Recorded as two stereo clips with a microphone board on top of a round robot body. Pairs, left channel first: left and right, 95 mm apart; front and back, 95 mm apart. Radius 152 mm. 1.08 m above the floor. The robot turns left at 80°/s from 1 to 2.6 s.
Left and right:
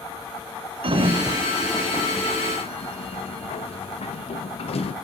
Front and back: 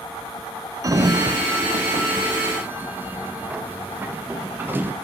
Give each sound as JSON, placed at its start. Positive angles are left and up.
{"t": 0.8, "sound": "a sliding door", "azimuth_deg": -125, "distance_m": 1.0}